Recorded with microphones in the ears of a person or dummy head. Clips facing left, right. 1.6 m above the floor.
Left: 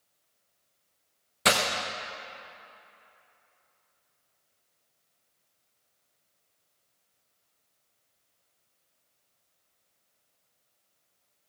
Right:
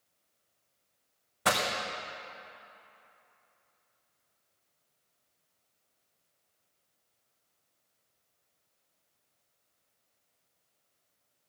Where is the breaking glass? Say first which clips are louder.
Left 3 dB; 20° left (ahead or behind), 0.8 m.